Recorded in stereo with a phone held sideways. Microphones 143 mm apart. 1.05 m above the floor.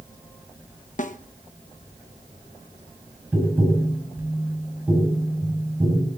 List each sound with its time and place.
1.0 s a snare drum: 60° left (ahead or behind), 1.0 m
3.3 s tapping: 10° right (ahead or behind), 6.5 m